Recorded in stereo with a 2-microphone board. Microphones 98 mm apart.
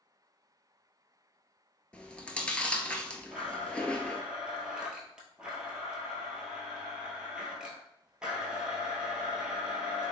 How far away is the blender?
About 0.9 m.